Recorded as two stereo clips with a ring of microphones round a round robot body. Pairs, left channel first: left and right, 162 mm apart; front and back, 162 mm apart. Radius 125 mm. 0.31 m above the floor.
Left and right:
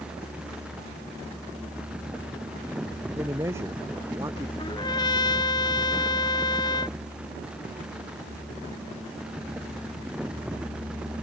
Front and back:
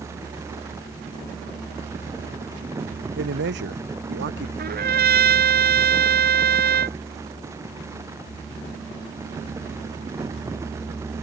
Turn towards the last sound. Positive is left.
turn(degrees=160)